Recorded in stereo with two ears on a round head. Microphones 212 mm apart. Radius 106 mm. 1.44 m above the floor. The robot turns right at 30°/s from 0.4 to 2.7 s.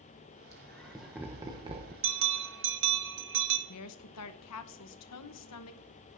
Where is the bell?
60° right (ahead or behind), 1.1 m; by 3.6 s 55° right (ahead or behind), 1.1 m.